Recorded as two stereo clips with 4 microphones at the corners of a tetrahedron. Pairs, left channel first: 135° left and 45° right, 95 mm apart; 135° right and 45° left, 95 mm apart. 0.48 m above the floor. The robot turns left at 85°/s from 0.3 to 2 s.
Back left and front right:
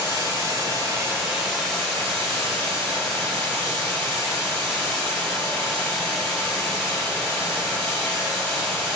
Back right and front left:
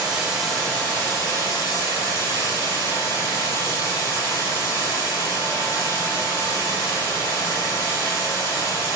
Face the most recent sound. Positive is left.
turn(degrees=-175)